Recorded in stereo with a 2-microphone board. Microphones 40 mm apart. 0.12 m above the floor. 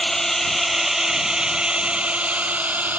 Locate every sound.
0.0 s a drone: 10° left (ahead or behind); by 3.0 s 40° right (ahead or behind)